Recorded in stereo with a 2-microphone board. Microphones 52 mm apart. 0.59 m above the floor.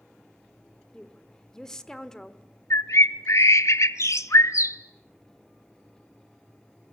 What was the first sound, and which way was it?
A woman speaking, 10° left (ahead or behind).